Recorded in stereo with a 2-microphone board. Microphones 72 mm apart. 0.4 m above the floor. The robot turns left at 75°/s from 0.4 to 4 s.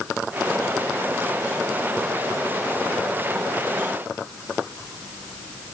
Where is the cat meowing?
No cat meowing in this recording.